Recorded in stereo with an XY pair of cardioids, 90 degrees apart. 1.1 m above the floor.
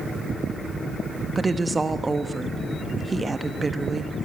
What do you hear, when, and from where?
1.4 s a woman speaking: 30° right, 1.2 m